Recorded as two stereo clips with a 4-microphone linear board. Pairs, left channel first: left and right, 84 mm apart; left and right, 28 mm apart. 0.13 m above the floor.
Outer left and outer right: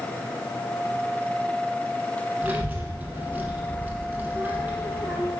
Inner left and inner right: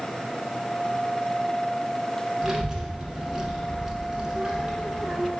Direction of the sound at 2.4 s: 20° right (ahead or behind).